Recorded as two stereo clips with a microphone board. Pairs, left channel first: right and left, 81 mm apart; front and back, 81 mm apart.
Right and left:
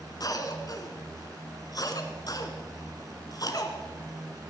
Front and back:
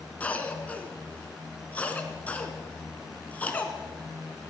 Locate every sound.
0.2 s a cough: 70° right, 2 m